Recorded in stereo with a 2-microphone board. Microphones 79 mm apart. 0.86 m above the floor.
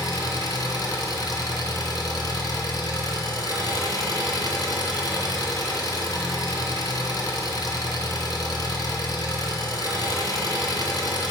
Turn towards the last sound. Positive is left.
turn(degrees=55)  # may be behind; listen again after turning